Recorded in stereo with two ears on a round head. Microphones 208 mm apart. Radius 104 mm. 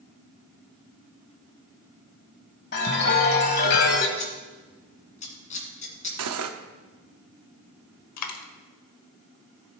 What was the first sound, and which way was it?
A chime, 50° left (ahead or behind).